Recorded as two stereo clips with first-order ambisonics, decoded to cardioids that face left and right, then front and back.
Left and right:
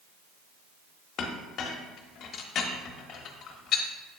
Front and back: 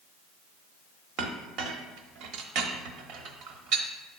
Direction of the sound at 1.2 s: 145° left.